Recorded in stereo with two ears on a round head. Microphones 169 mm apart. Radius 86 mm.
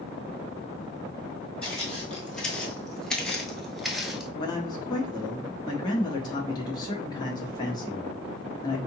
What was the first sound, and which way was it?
Footsteps, 5° left (ahead or behind).